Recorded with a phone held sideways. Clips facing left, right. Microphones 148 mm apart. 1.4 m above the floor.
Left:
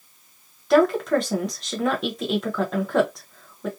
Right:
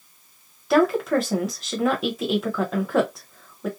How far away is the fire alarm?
I don't hear a fire alarm.